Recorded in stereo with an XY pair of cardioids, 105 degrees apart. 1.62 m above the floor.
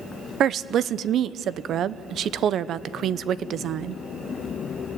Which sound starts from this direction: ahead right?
A woman speaking, at 0.4 s.